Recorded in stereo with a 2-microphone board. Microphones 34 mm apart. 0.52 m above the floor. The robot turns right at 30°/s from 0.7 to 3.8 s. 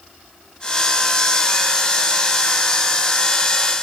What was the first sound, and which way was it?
Only background noise.